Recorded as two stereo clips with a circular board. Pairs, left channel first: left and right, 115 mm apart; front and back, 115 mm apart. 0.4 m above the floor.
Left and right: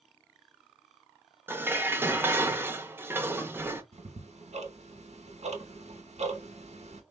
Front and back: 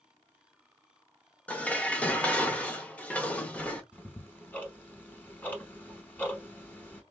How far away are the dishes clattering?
About 0.6 m.